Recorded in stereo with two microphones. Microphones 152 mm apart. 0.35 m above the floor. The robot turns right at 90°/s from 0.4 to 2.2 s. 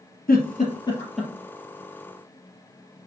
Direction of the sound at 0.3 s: 70° left (ahead or behind).